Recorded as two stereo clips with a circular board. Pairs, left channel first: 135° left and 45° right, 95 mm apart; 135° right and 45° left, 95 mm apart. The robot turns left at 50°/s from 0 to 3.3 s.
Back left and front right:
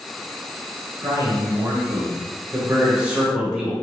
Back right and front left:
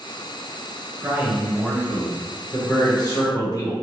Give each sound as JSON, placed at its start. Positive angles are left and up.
{"t": 1.0, "sound": "a man speaking", "azimuth_deg": -10, "distance_m": 1.2}